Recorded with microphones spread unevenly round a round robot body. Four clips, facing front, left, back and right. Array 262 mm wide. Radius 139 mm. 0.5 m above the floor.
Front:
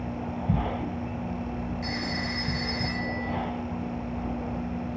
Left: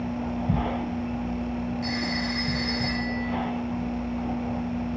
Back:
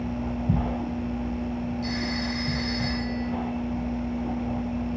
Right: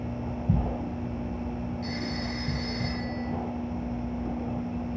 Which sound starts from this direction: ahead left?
A phone ringing, at 1.8 s.